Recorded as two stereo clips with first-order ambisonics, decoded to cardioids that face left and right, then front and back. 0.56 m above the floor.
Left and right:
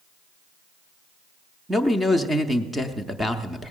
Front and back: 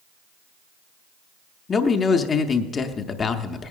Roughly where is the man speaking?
Ahead.